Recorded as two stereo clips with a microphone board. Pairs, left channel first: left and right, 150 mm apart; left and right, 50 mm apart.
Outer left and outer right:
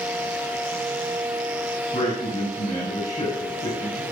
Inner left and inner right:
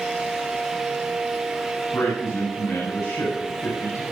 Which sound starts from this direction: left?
A man speaking, at 1.9 s.